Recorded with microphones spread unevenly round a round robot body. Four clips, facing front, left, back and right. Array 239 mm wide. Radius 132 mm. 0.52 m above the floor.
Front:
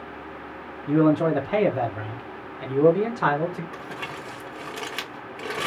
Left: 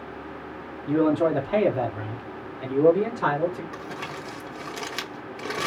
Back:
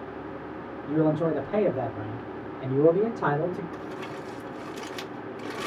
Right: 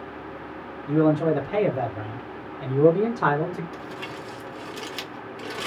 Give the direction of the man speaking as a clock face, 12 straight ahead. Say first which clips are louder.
Right 1 dB, front 5 dB; 10 o'clock.